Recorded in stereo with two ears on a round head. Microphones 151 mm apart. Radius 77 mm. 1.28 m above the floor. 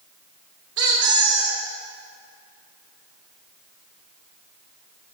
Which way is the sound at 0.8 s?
70° right (ahead or behind).